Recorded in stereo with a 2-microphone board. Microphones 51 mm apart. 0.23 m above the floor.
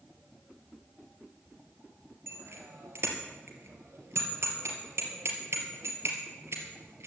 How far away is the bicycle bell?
About 3.5 m.